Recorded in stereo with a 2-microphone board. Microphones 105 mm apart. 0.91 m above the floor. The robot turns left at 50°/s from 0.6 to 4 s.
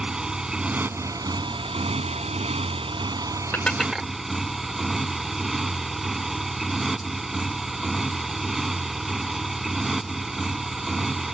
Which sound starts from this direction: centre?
Dishes clattering, at 3.5 s.